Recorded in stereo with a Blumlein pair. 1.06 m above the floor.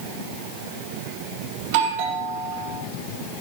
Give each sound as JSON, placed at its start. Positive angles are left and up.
{"t": 1.6, "sound": "a doorbell", "azimuth_deg": -50, "distance_m": 3.5}